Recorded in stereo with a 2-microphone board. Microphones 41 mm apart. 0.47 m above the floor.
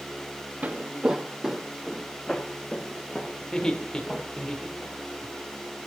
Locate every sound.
0.6 s footsteps: 40° right (ahead or behind), 0.6 m; by 4.3 s 15° left (ahead or behind), 2.5 m
3.4 s laughter: 20° left (ahead or behind), 1.6 m